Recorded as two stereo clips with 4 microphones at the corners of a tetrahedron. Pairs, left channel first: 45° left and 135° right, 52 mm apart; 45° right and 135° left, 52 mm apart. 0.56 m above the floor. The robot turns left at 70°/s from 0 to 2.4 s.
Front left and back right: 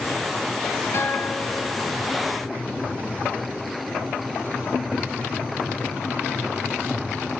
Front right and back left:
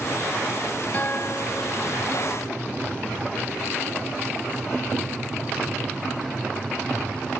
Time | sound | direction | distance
0.9 | a guitar | 15° left | 0.9 m